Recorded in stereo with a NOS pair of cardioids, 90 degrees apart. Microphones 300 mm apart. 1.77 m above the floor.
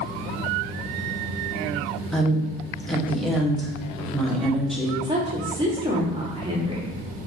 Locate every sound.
2.1 s a woman speaking: straight ahead, 1.4 m
5.0 s a woman speaking: 15° right, 1.9 m